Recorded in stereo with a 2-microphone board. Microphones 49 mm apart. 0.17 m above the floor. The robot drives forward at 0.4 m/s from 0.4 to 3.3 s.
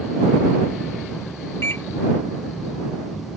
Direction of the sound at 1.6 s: 55° left (ahead or behind).